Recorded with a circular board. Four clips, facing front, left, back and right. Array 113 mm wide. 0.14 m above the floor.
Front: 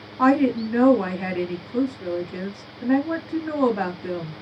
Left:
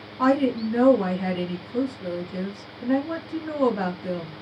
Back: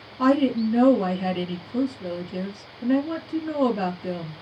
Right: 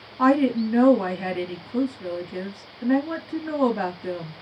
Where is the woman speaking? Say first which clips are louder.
Right 2 dB, front 1 dB; 10° right, 1.3 m.